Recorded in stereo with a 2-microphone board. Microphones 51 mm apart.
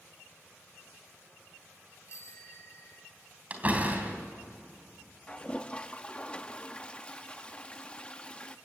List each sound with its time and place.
2.1 s a bicycle bell: 65° left (ahead or behind), 4 m
3.5 s a door slam: 30° right (ahead or behind), 3 m
5.3 s a toilet flushing: 20° left (ahead or behind), 0.8 m